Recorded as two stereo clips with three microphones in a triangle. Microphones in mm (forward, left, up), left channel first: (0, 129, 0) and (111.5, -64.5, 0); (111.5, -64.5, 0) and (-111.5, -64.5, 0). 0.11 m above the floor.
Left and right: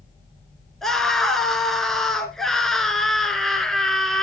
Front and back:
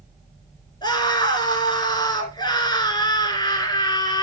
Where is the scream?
35° left, 1.6 m.